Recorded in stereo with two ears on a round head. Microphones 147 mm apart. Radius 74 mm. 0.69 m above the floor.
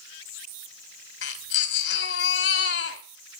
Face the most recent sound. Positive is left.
turn(degrees=75)  # may be behind; listen again after turning